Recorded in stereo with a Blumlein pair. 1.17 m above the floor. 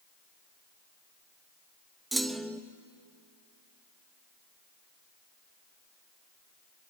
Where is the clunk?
5° right, 1.1 m.